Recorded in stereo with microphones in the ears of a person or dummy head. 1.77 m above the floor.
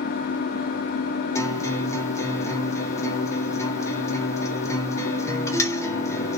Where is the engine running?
50° left (ahead or behind), 0.9 m.